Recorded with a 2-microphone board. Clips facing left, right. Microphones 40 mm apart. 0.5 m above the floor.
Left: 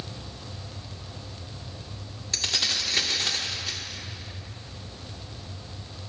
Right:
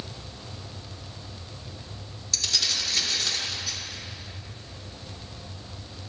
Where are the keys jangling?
35° left (ahead or behind), 0.7 m.